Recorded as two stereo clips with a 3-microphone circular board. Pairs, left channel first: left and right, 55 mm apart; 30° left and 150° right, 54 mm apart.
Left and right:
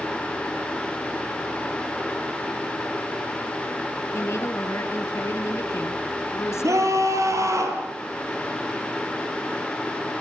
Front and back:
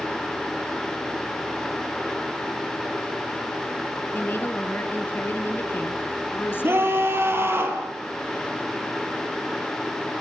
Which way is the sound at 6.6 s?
110° right.